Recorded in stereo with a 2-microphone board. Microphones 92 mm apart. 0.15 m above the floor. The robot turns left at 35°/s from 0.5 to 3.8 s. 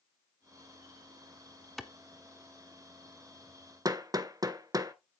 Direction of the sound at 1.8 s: Centre (ahead or behind).